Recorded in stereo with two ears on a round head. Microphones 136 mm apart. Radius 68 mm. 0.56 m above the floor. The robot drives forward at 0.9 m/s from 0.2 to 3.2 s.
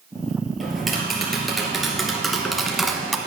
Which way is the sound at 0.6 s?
Centre (ahead or behind).